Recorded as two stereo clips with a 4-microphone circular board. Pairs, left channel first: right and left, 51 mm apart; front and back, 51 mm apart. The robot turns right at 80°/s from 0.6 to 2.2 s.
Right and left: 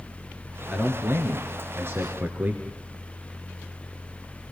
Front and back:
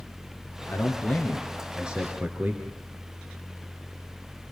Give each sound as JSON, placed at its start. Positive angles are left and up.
{"t": 0.7, "sound": "a man speaking", "azimuth_deg": 15, "distance_m": 3.0}